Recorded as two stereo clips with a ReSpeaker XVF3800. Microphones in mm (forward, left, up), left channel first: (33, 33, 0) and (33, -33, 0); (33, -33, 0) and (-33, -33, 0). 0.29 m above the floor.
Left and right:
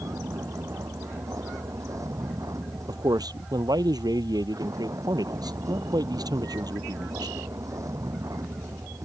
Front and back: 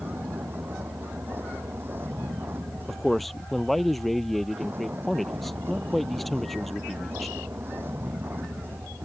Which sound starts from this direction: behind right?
A vehicle, at 0.0 s.